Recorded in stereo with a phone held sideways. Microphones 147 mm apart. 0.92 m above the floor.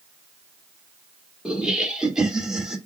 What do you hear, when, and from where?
1.4 s laughter: 5° right (ahead or behind), 1.6 m